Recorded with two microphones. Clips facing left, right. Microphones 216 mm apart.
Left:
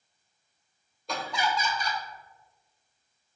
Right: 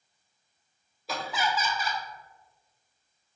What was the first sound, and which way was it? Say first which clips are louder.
Laughter: even; 5° right (ahead or behind).